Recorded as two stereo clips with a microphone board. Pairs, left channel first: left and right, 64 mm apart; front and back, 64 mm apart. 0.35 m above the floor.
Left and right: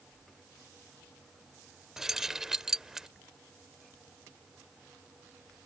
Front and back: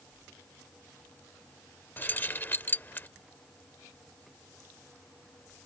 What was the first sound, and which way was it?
Keys jangling, 10° right.